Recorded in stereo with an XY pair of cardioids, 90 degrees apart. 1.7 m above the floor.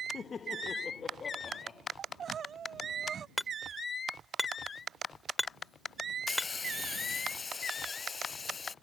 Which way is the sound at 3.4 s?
15° left.